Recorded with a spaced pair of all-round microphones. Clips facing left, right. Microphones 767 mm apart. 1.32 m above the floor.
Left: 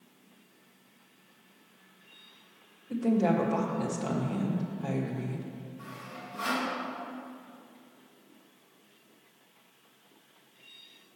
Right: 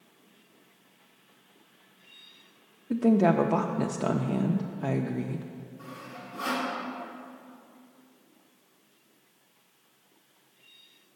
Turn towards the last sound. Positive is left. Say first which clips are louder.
# right 1 dB
turn(degrees=50)  # may be behind; listen again after turning